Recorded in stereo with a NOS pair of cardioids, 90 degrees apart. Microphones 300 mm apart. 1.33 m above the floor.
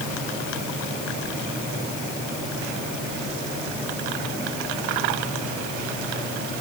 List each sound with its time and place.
Only background noise.